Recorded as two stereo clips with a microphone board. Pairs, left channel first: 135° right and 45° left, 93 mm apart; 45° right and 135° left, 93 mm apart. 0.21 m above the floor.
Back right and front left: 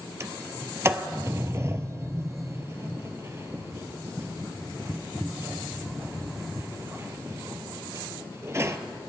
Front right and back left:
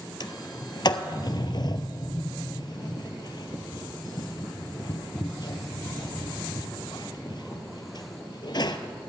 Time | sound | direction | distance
0.2 | a sliding door | 10° right | 0.6 m